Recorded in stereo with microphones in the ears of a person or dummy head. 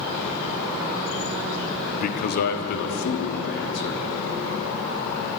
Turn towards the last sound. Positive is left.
turn(degrees=65)  # may be behind; listen again after turning